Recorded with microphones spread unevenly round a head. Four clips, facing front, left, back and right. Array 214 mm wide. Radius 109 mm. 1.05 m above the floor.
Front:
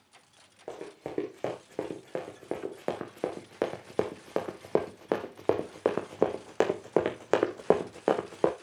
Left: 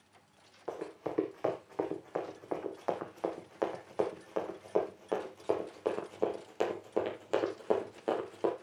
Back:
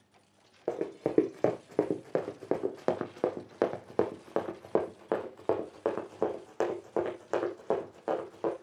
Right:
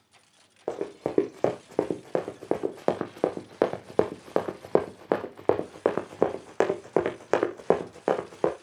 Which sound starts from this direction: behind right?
Running footsteps, at 0.7 s.